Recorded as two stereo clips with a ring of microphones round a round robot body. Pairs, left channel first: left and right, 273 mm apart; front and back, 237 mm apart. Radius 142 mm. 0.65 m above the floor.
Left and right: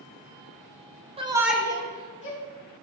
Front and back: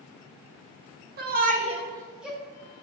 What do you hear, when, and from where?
1.2 s a shout: 150° right, 1.2 m; by 2.4 s 90° left, 1.3 m